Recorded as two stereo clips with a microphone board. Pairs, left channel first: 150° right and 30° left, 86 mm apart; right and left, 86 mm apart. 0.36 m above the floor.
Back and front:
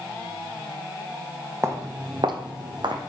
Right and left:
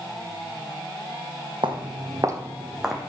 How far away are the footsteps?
About 1.0 m.